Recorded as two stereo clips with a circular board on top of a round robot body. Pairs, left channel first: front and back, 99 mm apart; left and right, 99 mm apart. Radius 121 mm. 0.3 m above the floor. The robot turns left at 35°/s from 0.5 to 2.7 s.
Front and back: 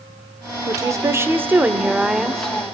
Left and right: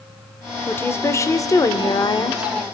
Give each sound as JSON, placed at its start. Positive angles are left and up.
{"t": 0.7, "sound": "a woman speaking", "azimuth_deg": 150, "distance_m": 1.2}